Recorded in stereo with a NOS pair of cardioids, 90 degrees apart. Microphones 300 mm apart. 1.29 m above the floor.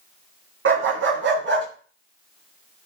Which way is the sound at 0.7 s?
45° right.